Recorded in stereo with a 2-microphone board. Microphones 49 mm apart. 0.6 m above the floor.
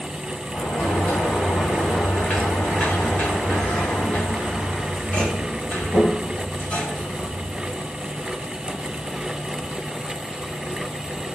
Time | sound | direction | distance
0.5 | a sliding door | 25° left (ahead or behind) | 1.8 m